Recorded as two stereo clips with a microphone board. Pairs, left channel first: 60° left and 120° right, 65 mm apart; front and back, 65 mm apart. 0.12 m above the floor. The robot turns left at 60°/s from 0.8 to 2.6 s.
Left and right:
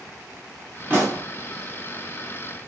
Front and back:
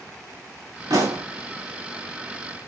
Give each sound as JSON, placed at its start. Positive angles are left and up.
{"t": 0.9, "sound": "a pop", "azimuth_deg": 180, "distance_m": 4.0}